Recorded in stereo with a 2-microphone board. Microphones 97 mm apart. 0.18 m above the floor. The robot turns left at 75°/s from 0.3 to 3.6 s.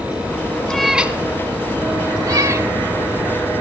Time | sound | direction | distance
0.7 | a cat meowing | 10° left (ahead or behind) | 0.6 m